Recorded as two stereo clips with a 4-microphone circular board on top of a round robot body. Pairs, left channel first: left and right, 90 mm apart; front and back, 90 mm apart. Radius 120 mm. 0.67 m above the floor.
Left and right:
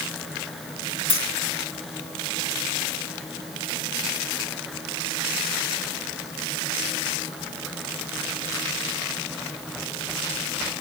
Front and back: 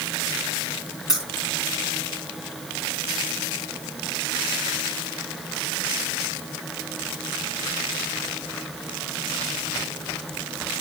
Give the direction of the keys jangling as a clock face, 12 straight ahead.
9 o'clock.